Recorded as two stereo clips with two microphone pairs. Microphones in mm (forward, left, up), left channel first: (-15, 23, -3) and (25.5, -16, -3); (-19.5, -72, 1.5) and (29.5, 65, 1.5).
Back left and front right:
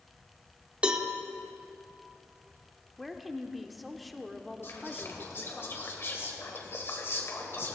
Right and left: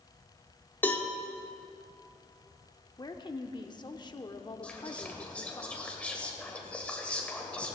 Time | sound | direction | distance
0.8 | a cowbell | 65° right | 1.0 m
3.0 | a woman speaking | 135° right | 0.8 m
4.6 | whispering | 170° left | 2.5 m